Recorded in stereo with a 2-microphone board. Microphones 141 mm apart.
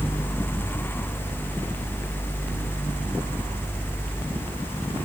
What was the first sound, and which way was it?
Only background noise.